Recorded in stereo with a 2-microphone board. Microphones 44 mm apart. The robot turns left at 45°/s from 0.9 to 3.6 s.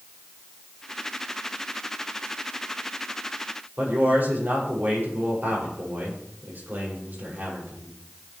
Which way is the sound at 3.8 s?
45° right (ahead or behind).